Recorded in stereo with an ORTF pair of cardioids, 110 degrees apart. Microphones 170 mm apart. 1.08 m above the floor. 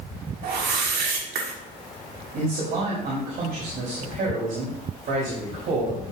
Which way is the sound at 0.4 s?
65° right.